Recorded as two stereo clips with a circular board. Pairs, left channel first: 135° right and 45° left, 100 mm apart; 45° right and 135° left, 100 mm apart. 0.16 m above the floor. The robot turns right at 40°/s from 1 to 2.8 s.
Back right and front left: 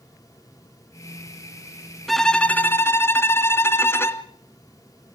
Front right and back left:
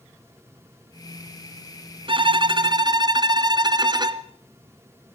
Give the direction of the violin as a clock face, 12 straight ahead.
7 o'clock.